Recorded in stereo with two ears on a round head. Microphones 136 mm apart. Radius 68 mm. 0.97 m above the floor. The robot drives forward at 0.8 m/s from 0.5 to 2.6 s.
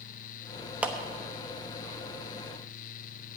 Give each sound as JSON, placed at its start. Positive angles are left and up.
{"t": 0.8, "sound": "a clap", "side_deg": -10, "distance_m": 0.9}